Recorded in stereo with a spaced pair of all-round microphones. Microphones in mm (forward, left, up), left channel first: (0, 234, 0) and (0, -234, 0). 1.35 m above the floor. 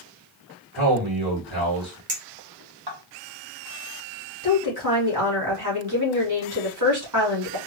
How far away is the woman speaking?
About 2.5 m.